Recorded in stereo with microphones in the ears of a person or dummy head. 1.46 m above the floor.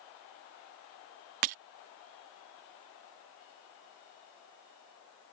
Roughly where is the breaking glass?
Right.